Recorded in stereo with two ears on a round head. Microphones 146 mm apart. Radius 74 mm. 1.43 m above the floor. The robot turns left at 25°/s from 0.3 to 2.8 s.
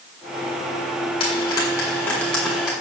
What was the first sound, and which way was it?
Frying, 35° left (ahead or behind).